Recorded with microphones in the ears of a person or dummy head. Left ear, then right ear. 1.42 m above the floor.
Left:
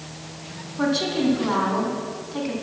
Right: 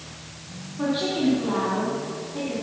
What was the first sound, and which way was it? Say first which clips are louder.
A woman speaking: left 2 dB; 65° left (ahead or behind).